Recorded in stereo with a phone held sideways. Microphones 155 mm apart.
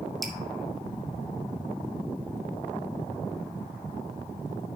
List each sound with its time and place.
0.2 s dripping: centre (ahead or behind), 1.6 m